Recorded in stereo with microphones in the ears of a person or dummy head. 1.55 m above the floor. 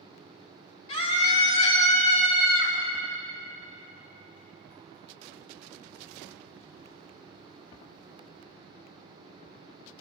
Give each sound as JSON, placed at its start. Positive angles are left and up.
{"t": 0.9, "sound": "a scream", "side_deg": 40, "distance_m": 4.0}